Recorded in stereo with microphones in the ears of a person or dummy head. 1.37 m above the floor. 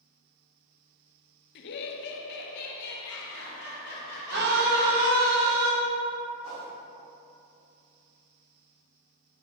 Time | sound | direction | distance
1.6 | laughter | 60° left (ahead or behind) | 0.6 m
4.3 | a scream | 60° right (ahead or behind) | 1.5 m
6.4 | a whoosh | 80° right | 1.7 m